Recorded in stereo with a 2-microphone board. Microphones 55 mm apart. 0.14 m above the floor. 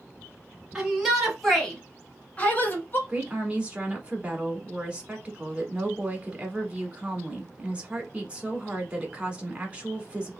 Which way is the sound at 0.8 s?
10° right (ahead or behind).